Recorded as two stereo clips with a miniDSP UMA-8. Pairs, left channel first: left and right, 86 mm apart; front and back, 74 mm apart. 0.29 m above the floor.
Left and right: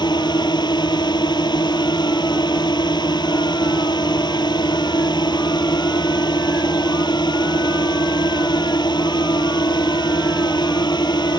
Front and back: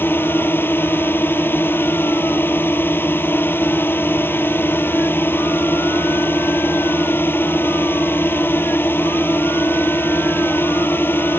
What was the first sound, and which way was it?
A drone, 60° left.